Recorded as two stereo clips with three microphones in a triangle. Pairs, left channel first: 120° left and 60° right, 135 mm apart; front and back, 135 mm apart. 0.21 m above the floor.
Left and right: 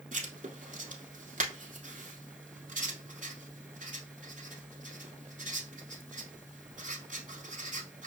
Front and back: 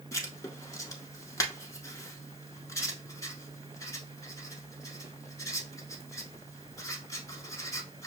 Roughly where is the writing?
Ahead right.